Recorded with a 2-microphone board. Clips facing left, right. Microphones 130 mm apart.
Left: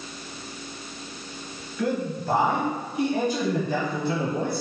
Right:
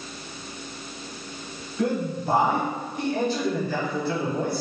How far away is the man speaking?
About 1.1 m.